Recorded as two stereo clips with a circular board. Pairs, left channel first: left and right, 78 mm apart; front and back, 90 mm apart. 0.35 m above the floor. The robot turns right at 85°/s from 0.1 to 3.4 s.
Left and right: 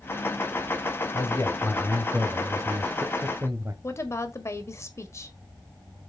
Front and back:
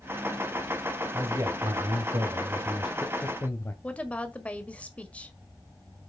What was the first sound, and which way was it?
A man speaking, 115° left.